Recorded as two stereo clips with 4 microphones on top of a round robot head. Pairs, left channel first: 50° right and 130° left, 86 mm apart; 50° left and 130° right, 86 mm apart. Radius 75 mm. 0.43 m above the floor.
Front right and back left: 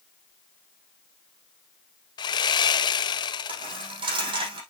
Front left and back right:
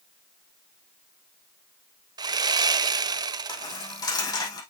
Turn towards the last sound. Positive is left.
turn(degrees=100)